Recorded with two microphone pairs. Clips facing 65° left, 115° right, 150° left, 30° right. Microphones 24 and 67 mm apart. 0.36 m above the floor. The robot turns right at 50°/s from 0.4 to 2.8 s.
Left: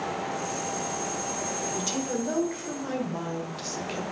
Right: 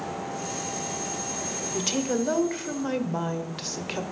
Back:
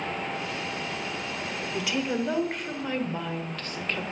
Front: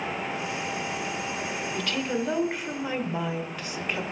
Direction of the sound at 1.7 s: 150° right.